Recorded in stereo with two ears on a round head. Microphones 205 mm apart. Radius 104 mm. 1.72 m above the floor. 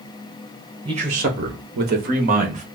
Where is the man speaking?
20° right (ahead or behind), 0.7 m; by 2.6 s 35° right (ahead or behind), 1.4 m.